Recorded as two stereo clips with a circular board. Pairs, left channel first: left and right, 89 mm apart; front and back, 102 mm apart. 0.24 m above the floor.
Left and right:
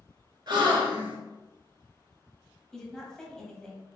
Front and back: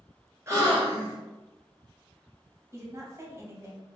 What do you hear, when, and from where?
0.5 s a gasp: 120° right, 1.5 m
2.7 s a woman speaking: 165° left, 1.0 m